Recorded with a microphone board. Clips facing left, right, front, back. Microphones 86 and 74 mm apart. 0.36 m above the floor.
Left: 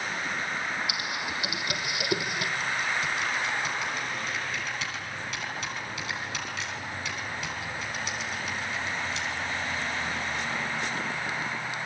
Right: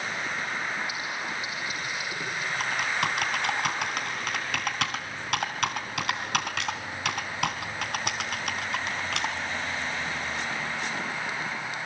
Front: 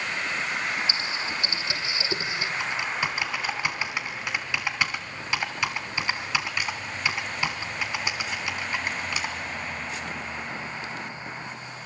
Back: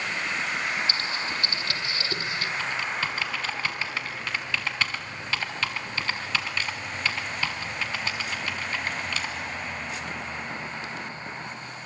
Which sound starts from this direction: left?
Typing on a keyboard, at 0.9 s.